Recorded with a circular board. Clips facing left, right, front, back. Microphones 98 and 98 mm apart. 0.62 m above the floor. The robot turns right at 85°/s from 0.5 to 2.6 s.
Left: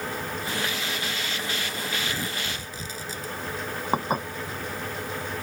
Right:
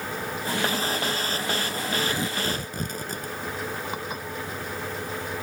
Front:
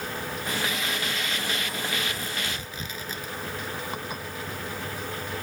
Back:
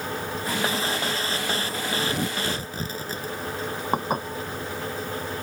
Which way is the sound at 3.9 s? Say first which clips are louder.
Left 7 dB, back 9 dB; 135° left.